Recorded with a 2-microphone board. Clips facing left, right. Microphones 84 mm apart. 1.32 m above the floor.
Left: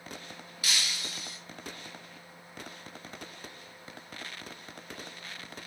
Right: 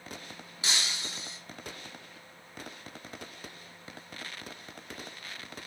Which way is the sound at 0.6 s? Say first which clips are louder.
Right 1 dB; 25° right (ahead or behind).